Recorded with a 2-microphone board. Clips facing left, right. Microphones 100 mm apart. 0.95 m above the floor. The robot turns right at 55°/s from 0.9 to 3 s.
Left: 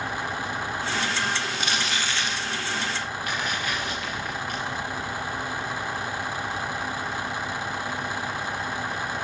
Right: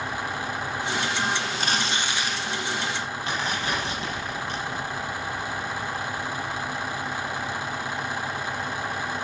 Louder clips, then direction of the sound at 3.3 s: Right 2 dB; 25° right (ahead or behind).